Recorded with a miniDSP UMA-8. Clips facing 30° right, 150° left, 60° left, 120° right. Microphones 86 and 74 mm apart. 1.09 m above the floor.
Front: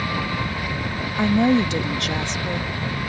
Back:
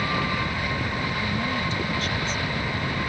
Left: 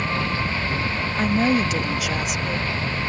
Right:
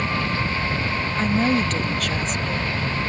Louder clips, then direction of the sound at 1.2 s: Front 15 dB, left 1 dB; 20° right.